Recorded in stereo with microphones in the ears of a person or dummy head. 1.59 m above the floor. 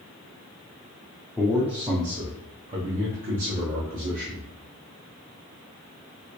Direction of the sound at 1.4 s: 5° left (ahead or behind).